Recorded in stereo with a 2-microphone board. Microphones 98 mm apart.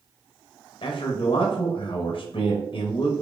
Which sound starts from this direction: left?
A man speaking, at 0.8 s.